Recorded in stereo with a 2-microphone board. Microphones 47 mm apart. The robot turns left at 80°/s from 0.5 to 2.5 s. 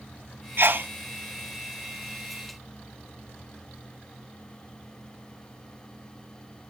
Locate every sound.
0.6 s a sneeze: 50° right (ahead or behind), 0.8 m; by 0.9 s 40° right (ahead or behind), 0.8 m